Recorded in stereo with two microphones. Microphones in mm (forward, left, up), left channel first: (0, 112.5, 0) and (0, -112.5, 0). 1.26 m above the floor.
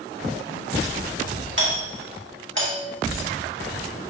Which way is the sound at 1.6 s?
55° right (ahead or behind).